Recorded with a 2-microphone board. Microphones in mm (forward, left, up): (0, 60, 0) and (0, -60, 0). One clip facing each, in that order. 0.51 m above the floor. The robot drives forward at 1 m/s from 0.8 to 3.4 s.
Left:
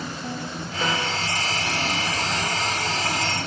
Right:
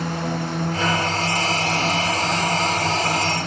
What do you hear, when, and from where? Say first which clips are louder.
0.0 s a drone: right 6 dB; 75° right (ahead or behind)